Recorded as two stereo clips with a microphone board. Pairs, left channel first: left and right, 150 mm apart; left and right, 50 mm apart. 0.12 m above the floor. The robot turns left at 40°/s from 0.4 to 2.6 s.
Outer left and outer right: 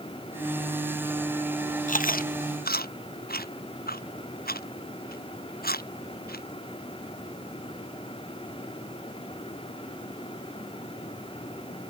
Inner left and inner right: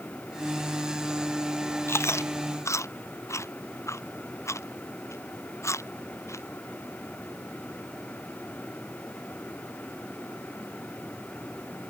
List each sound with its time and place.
1.9 s chewing: 60° left (ahead or behind); by 6.4 s 85° left